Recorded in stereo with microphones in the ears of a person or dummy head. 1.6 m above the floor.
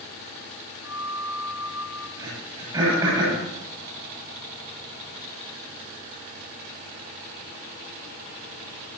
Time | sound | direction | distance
0.8 | a flute | 15° right (ahead or behind) | 5 m
2.2 | throat clearing | 20° right (ahead or behind) | 9.5 m